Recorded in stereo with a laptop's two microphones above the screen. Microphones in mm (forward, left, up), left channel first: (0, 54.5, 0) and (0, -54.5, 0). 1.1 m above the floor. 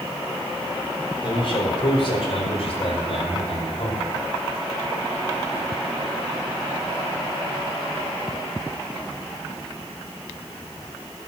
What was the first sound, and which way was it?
A man speaking, 55° left (ahead or behind).